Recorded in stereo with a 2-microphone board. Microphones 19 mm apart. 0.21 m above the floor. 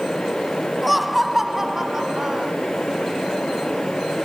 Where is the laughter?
Centre (ahead or behind); by 2.5 s 35° right (ahead or behind).